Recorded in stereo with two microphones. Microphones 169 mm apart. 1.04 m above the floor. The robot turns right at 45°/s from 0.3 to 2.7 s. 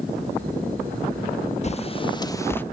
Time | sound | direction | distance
1.6 | a bird | 40° left (ahead or behind) | 0.6 m